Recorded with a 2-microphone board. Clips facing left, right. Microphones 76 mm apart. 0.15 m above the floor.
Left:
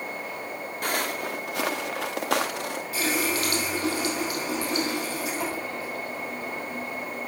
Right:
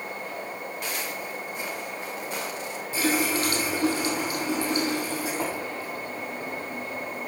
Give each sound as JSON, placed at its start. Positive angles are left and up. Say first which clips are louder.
{"t": 0.8, "sound": "footsteps", "louder": "left 8 dB", "side_deg": 50, "distance_m": 1.0}
{"t": 2.9, "sound": "a running tap", "louder": "right 3 dB", "side_deg": -30, "distance_m": 4.5}